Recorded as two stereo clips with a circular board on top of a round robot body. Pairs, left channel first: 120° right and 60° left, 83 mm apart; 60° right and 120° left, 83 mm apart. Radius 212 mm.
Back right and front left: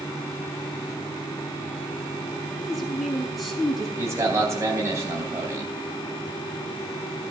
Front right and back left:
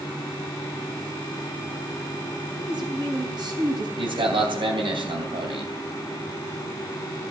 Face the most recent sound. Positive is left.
turn(degrees=115)